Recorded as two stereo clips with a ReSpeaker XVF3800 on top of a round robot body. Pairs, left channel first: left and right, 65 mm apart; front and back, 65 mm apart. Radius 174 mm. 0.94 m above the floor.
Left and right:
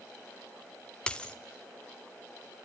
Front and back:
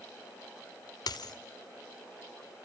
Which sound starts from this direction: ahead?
A dropped coin, at 1.1 s.